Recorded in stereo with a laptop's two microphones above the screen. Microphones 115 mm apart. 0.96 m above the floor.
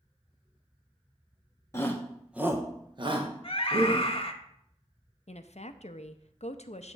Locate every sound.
1.7 s a shout: 25° left (ahead or behind), 0.9 m; by 4.1 s 65° right (ahead or behind), 2.0 m
3.4 s a scream: 50° left (ahead or behind), 1.0 m
5.3 s a woman speaking: 70° left (ahead or behind), 0.6 m